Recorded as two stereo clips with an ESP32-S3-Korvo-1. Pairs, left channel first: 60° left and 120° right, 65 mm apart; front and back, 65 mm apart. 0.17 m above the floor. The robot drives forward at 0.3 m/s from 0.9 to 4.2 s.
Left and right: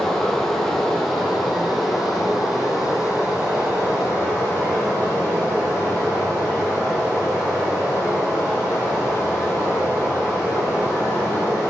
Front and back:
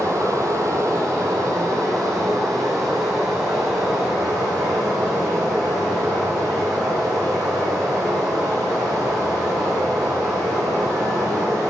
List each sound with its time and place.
0.0 s running water: 145° left, 1.1 m; by 11.7 s 160° left, 2.0 m